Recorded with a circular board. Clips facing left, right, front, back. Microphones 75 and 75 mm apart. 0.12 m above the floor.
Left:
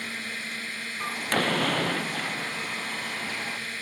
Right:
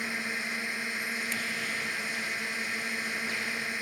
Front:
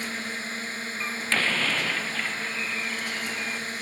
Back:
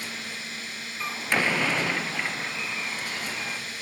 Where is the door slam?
105° left.